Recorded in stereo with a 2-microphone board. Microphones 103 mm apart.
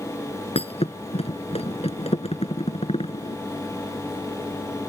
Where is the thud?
80° left.